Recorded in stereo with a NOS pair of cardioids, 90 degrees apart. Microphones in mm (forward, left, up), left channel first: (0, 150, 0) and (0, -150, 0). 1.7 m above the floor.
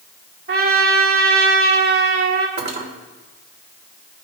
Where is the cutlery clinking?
35° right, 3 m.